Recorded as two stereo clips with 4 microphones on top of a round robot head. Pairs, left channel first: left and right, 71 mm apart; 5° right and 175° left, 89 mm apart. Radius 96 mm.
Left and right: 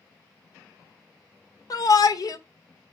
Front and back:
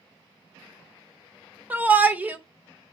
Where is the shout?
105° left, 1.2 m.